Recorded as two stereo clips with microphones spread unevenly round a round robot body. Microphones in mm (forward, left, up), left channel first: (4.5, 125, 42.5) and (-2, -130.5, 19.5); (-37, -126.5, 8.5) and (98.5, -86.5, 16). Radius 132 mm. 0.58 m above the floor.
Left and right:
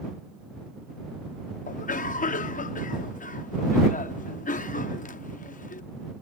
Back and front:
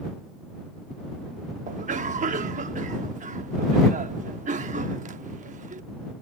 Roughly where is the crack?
I don't hear a crack.